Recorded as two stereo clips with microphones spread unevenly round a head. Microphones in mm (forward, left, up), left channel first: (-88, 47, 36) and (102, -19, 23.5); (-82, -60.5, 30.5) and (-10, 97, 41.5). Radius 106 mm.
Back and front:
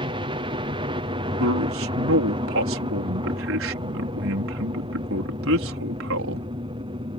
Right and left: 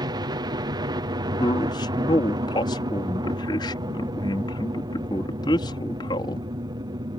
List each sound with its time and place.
0.0 s a helicopter: 15° left
1.4 s a man speaking: 45° right